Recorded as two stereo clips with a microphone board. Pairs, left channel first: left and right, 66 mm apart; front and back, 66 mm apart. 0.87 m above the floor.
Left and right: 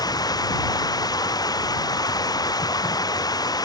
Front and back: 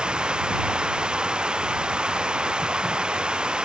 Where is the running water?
105° left.